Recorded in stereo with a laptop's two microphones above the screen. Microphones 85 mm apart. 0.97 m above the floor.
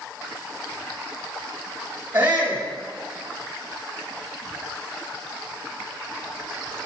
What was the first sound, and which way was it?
A shout, 25° right (ahead or behind).